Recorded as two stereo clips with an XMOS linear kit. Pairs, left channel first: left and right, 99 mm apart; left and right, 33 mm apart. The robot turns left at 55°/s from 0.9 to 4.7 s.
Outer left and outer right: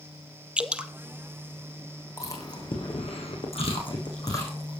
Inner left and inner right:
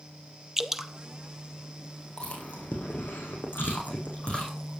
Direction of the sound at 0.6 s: 10° right (ahead or behind).